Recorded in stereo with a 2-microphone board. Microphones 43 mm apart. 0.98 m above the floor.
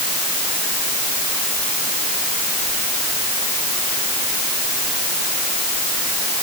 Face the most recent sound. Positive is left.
No sound to turn to.